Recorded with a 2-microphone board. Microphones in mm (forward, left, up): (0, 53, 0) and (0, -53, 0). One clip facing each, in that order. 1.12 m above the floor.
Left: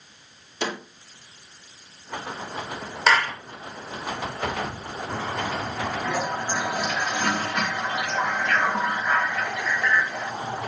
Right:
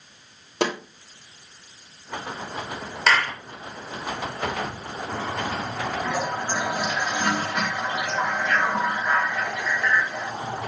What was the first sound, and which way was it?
A snare drum, 70° right (ahead or behind).